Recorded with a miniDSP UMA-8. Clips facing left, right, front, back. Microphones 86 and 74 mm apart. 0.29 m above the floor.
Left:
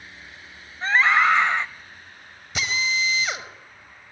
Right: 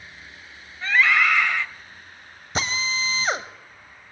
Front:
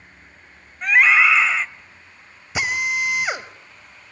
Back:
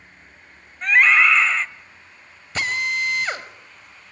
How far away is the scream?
About 0.9 m.